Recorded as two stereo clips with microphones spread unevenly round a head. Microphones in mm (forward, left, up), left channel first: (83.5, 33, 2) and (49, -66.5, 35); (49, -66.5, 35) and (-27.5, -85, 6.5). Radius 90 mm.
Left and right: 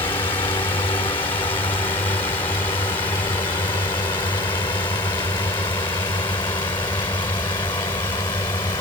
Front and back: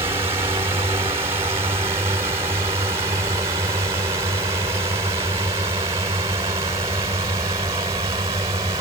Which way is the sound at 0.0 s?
140° left.